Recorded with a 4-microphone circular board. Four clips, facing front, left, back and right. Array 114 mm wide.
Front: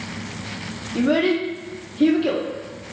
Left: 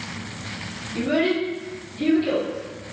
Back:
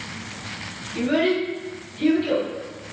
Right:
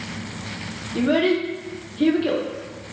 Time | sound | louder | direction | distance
0.9 | a child speaking | right 2 dB, front 2 dB | 35° right | 0.7 m